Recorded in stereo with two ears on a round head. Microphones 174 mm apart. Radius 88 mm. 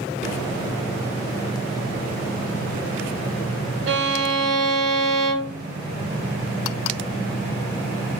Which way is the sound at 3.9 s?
65° right (ahead or behind).